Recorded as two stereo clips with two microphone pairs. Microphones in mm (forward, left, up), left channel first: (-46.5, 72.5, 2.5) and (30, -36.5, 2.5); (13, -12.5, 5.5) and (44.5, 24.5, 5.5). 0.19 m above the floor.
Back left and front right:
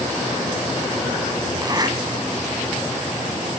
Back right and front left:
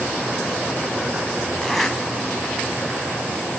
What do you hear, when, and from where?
1.6 s a zipper: 50° right, 1.0 m